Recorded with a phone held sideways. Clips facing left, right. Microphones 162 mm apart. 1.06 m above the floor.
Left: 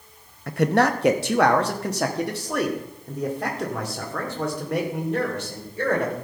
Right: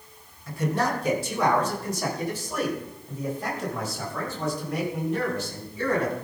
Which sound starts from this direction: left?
A man speaking, at 0.5 s.